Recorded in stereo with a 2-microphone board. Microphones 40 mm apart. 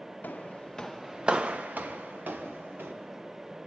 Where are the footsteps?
50° left (ahead or behind), 1.0 m; by 2.9 s 60° right (ahead or behind), 2.5 m.